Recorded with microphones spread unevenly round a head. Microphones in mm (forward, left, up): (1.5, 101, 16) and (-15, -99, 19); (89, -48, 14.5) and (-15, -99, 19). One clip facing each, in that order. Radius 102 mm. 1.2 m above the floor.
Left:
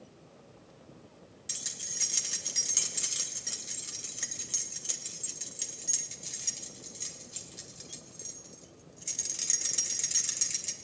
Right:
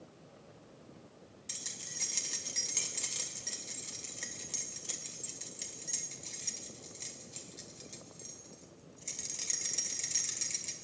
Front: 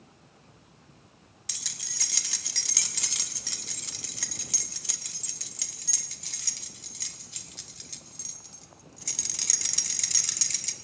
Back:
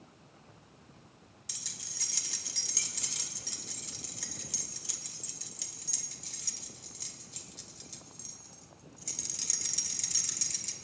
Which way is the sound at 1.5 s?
5° left.